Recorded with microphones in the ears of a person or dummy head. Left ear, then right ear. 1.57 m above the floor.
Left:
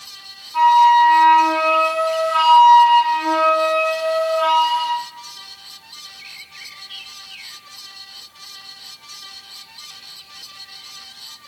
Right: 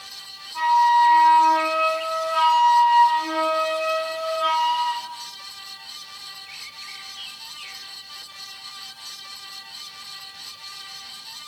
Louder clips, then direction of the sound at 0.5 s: Left 5 dB; 25° left (ahead or behind).